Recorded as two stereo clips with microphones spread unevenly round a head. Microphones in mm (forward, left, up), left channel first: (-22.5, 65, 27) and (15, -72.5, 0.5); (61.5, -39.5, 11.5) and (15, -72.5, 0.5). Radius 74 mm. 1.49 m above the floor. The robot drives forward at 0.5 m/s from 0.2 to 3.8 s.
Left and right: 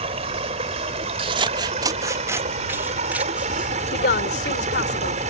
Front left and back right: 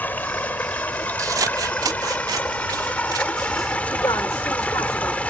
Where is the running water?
20° right; by 5.3 s 25° right.